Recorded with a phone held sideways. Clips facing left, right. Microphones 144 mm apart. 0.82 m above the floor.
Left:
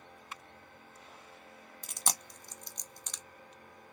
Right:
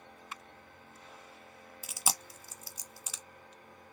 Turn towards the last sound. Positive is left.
turn(degrees=-5)  # may be behind; listen again after turning